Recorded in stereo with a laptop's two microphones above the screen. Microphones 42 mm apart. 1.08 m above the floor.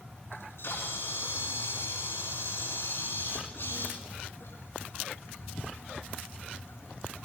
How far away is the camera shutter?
About 5 m.